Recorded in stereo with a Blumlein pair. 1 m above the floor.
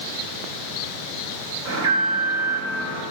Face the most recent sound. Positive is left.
turn(degrees=-60)